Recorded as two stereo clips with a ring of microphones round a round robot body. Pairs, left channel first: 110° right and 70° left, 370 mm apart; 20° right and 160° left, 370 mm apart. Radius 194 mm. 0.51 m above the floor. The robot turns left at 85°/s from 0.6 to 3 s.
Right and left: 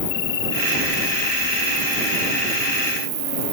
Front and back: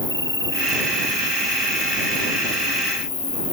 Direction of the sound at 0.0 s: 105° right.